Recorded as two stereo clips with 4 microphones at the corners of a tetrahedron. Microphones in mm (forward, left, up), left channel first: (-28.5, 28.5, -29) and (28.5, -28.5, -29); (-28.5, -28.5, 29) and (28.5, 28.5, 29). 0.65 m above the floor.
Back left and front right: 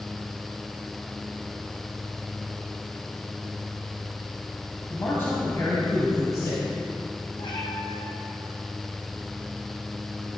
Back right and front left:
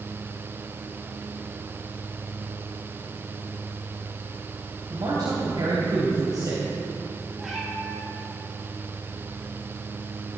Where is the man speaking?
75° left, 3 m; by 6.6 s 90° left, 3 m.